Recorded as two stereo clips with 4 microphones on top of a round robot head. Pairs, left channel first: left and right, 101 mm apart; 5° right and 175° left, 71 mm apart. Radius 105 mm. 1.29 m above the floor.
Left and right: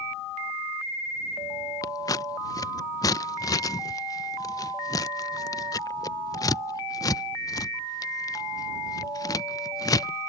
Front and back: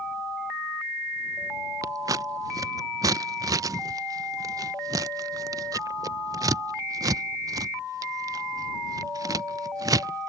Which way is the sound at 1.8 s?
145° left.